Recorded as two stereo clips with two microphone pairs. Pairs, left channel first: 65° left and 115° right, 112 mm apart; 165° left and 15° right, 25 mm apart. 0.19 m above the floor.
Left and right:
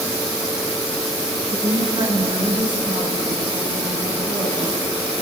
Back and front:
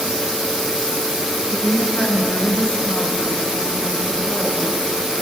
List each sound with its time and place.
1.5 s a woman speaking: 150° right, 3 m; by 4.9 s 170° right, 8 m